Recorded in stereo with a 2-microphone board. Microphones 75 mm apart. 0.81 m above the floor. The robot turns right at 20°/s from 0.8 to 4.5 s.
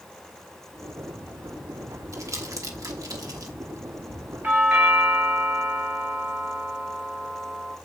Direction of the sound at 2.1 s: 45° right (ahead or behind).